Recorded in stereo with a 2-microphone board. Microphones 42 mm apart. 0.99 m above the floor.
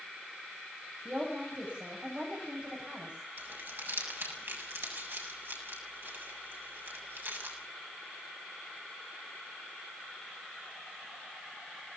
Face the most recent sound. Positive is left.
turn(degrees=-60)  # may be behind; listen again after turning